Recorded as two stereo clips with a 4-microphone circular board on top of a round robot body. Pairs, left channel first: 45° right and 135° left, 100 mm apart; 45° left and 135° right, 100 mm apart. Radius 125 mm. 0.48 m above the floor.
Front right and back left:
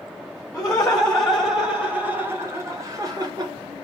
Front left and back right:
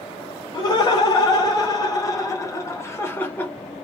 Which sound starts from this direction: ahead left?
Laughter, at 0.5 s.